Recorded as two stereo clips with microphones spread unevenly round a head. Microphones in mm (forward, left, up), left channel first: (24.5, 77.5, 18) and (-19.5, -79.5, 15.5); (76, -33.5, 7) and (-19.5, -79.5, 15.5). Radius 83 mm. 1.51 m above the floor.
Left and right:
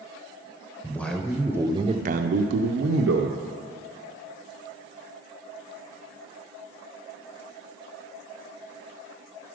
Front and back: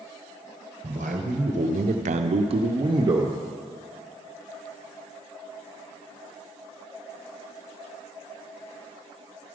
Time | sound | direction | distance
0.8 | a man speaking | 155° left | 1.0 m